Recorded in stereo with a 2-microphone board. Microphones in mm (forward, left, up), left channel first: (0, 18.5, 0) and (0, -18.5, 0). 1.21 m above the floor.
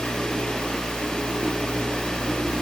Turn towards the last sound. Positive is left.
No sound to turn to.